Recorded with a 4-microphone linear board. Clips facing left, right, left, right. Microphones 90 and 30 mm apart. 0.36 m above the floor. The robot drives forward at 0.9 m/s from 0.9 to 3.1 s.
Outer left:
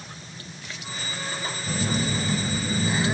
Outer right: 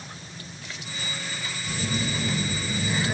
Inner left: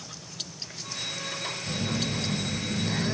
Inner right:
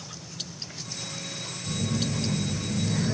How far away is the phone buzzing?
About 2.5 m.